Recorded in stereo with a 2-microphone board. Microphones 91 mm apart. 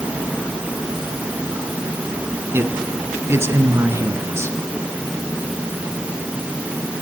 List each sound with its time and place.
2.5 s a man speaking: 25° right (ahead or behind), 2.5 m; by 4.6 s 30° right (ahead or behind), 3.5 m